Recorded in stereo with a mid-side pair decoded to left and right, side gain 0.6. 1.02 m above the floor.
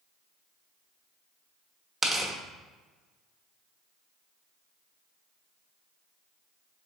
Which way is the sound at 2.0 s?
20° right.